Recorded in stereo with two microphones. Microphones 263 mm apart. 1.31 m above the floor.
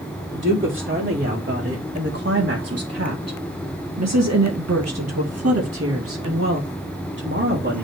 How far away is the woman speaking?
About 2.5 m.